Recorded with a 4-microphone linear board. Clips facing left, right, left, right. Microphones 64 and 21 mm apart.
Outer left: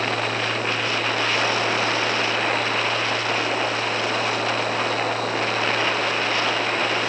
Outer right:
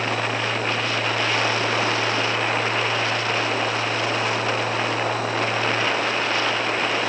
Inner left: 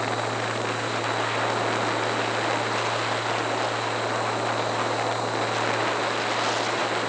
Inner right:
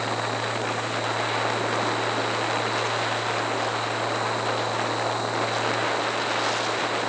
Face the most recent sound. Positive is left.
No sound to turn to.